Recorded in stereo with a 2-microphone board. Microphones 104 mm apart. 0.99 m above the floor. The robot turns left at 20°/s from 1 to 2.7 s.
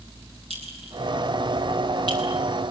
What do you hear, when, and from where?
0.5 s a clink: 70° right (ahead or behind), 7.5 m; by 2.2 s 45° right (ahead or behind), 7.5 m